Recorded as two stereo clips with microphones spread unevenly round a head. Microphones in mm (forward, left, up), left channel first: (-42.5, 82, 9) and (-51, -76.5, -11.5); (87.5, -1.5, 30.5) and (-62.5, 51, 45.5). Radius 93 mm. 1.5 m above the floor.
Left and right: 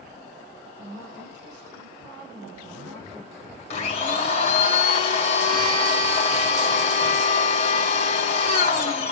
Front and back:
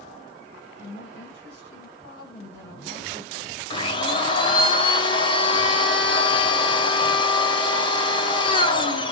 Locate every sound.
0.8 s a woman speaking: 45° right, 9 m
3.7 s a blender: 40° left, 2 m